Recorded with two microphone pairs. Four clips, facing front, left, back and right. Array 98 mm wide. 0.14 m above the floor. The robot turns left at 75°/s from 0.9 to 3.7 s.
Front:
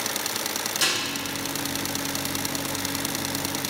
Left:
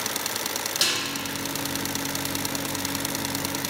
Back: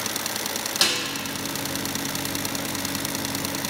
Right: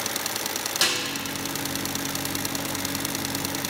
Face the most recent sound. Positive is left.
turn(degrees=5)